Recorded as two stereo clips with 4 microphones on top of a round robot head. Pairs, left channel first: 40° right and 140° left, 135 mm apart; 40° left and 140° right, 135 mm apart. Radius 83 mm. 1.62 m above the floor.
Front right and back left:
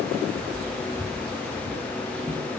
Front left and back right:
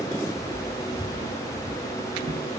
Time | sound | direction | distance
0.4 | footsteps | 85° left | 1.8 m